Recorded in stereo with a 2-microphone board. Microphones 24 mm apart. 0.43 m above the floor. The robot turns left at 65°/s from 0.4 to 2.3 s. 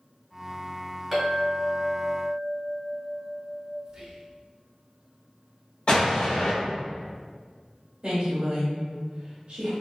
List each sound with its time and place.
1.1 s a clink: 175° right, 1.5 m; by 3.8 s 110° left, 1.5 m
3.9 s whispering: 35° right (ahead or behind), 0.9 m
5.9 s an explosion: 55° left (ahead or behind), 1.3 m
8.0 s a woman speaking: 35° right (ahead or behind), 1.2 m